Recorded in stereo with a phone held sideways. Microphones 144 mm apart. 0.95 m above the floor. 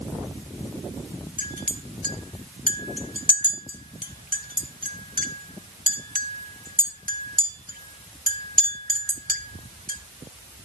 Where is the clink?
80° right, 1.3 m.